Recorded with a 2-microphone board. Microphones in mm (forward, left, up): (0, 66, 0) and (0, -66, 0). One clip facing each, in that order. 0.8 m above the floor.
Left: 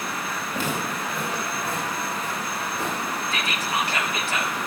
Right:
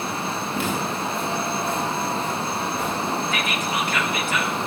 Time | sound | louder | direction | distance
0.5 | footsteps | right 1 dB | 40° left (ahead or behind) | 5 m
3.3 | whispering | right 2 dB | 30° left (ahead or behind) | 1.5 m